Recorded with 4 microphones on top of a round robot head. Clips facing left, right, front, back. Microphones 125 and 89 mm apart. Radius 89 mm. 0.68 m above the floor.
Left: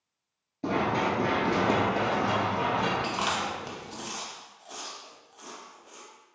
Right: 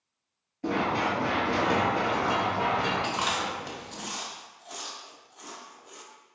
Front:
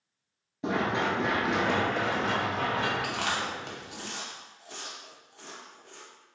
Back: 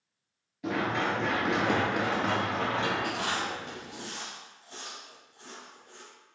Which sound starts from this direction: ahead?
Chewing, at 3.0 s.